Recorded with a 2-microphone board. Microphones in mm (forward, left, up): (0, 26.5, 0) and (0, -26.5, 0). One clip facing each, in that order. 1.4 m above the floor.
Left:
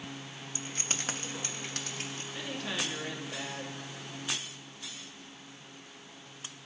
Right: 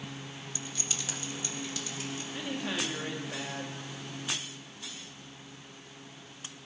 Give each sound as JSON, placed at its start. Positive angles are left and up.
{"t": 0.6, "sound": "keys jangling", "side_deg": 35, "distance_m": 0.7}
{"t": 2.3, "sound": "a woman speaking", "side_deg": -10, "distance_m": 2.0}